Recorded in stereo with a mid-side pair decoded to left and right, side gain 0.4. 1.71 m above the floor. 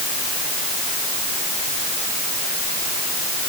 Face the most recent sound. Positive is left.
No sound to turn to.